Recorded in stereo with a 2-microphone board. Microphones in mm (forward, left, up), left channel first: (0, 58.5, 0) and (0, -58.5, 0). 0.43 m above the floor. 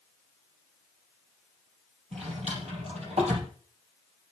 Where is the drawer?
65° right (ahead or behind), 4 m.